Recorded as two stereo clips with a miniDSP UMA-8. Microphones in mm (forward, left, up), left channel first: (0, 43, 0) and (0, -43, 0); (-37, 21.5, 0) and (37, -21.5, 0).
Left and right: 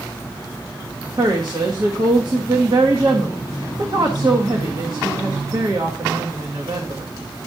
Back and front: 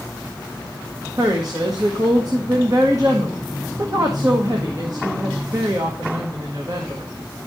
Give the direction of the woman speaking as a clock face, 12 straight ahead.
2 o'clock.